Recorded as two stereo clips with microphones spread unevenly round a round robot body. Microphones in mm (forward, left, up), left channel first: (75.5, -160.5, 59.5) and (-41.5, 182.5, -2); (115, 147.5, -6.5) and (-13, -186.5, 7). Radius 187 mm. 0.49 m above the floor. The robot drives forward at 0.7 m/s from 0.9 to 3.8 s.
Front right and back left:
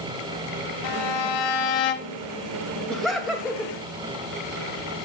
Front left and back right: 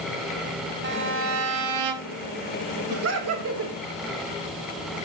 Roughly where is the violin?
Ahead right.